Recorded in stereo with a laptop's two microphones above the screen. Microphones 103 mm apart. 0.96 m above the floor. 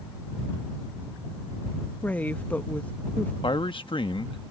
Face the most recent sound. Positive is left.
turn(degrees=55)  # may be behind; listen again after turning